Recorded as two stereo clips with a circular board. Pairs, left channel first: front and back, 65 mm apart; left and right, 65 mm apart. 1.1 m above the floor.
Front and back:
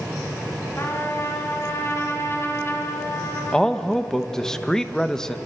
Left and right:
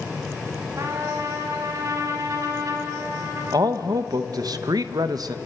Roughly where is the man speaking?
Right.